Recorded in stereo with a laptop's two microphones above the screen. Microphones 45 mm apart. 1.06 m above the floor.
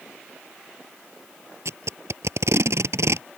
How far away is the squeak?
No squeak in this recording.